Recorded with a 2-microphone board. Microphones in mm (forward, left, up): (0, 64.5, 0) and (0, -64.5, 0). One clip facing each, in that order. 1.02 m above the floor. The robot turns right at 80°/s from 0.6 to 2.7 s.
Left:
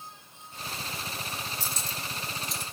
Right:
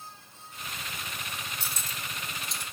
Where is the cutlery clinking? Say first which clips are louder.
Left 2 dB; 70° right (ahead or behind), 1.4 m; by 2.6 s 10° left (ahead or behind), 1.4 m.